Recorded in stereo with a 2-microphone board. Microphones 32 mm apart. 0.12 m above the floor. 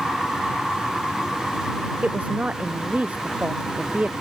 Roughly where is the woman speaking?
Right.